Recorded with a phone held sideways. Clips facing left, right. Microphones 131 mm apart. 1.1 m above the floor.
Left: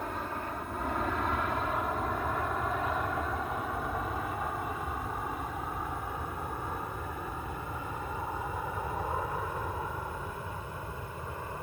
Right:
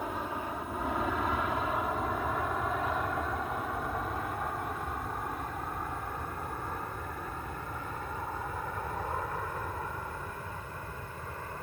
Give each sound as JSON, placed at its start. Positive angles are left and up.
{"t": 0.0, "sound": "an aircraft", "side_deg": -10}